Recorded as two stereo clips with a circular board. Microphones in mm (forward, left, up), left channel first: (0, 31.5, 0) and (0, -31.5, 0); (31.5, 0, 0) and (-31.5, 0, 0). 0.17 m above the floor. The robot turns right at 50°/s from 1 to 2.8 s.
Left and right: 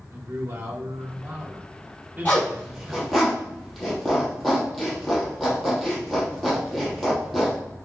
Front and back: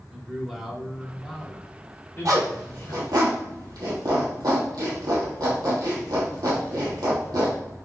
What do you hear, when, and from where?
0.1 s a man speaking: 95° right, 2 m; by 3.1 s 5° right, 2 m
2.2 s a zipper: 150° left, 3.5 m; by 7.6 s straight behind, 3.5 m